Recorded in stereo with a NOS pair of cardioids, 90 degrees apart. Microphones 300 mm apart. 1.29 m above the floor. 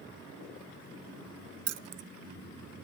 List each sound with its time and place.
1.7 s keys jangling: 60° right, 0.6 m